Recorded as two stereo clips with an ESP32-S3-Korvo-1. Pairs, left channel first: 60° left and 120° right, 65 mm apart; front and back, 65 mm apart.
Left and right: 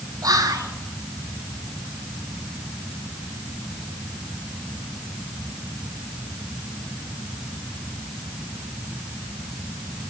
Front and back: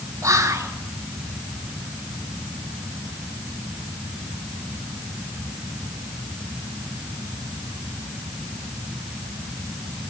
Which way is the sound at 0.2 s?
140° right.